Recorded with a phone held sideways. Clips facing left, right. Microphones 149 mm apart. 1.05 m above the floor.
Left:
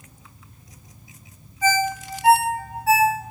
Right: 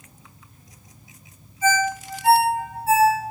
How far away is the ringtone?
About 0.8 m.